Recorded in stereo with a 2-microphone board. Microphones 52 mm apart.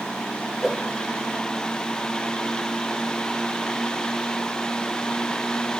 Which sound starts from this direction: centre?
A whoosh, at 0.6 s.